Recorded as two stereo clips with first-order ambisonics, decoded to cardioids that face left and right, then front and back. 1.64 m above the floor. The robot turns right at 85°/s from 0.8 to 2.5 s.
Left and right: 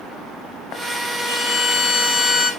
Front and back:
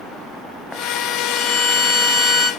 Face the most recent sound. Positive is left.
turn(degrees=100)